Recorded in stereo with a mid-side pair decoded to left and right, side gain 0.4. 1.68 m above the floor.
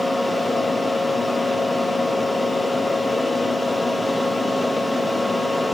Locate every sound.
0.0 s a fan: straight ahead, 0.7 m